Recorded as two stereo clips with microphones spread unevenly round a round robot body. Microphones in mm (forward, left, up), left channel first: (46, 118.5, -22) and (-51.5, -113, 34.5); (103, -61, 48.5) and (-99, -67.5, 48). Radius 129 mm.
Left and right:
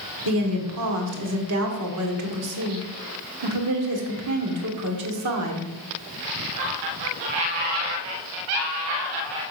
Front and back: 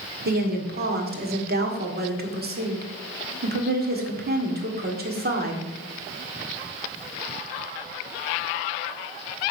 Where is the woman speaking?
145° right, 1.9 m.